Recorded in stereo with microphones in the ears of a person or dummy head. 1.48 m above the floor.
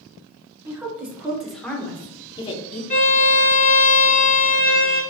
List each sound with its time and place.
0.7 s a woman speaking: 5° right (ahead or behind), 1.5 m; by 2.8 s 45° left (ahead or behind), 0.8 m
2.9 s a violin: 35° left (ahead or behind), 0.6 m